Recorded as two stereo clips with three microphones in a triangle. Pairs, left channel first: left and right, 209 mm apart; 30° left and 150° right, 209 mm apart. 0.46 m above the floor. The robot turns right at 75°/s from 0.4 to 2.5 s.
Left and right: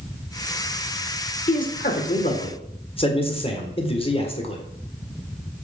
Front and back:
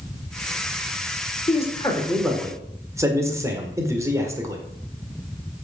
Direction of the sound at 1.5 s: 65° left.